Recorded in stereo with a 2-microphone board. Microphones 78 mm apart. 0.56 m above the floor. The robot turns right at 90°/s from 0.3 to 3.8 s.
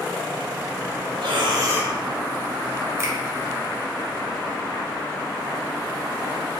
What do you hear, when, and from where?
1.2 s breathing: 85° right, 0.7 m; by 1.9 s 15° right, 0.7 m
3.0 s a finger snap: 35° right (ahead or behind), 0.8 m